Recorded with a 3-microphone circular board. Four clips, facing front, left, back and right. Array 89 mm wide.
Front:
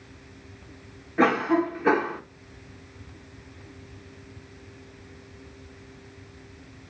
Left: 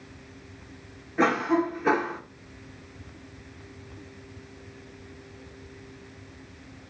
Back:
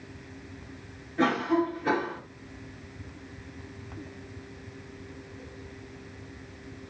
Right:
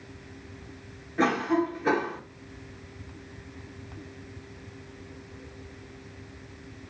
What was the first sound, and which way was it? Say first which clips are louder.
A cough: left 1 dB, front 4 dB; 15° left.